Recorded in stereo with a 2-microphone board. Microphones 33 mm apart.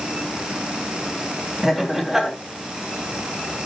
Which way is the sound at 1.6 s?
10° right (ahead or behind).